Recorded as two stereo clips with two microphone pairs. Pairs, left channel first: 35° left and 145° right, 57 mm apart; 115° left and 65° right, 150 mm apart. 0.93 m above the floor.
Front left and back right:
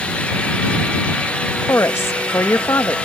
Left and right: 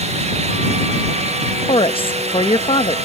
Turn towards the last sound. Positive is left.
turn(degrees=70)